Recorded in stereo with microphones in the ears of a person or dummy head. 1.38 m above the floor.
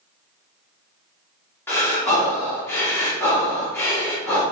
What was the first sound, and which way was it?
Breathing, 10° left (ahead or behind).